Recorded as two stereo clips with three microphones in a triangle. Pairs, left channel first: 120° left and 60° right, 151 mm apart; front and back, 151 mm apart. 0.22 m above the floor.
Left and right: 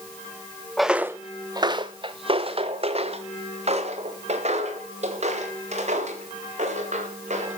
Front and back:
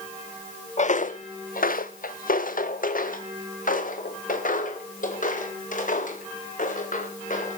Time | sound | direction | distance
0.8 | footsteps | 30° left | 0.6 m